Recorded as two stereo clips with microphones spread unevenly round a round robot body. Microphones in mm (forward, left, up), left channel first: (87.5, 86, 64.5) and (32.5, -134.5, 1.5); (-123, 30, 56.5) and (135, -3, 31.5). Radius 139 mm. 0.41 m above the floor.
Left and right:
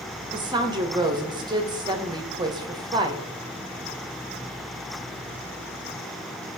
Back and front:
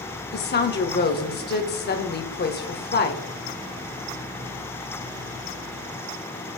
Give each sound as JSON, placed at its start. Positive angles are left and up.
{"t": 0.3, "sound": "a woman speaking", "azimuth_deg": -145, "distance_m": 1.6}